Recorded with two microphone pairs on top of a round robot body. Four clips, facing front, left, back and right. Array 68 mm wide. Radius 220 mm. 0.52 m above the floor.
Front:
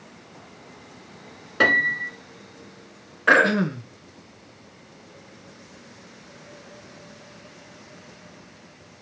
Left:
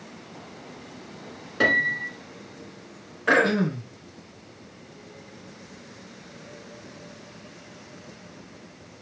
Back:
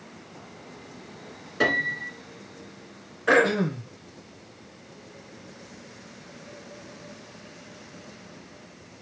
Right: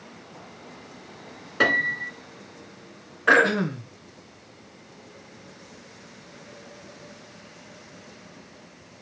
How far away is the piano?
About 1.7 m.